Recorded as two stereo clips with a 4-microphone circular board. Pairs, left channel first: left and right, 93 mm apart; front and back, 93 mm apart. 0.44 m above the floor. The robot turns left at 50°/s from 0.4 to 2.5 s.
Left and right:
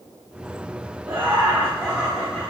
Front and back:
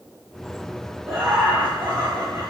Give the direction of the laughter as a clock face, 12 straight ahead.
4 o'clock.